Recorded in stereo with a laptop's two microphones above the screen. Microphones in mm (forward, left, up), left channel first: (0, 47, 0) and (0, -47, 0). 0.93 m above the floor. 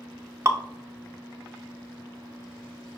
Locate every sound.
0.5 s dripping: 30° right (ahead or behind), 0.5 m